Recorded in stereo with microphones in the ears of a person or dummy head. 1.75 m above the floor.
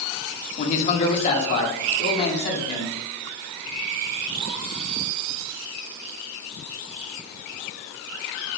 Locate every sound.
0.6 s a man speaking: 45° left (ahead or behind), 1.5 m; by 3.0 s 40° left (ahead or behind), 3.5 m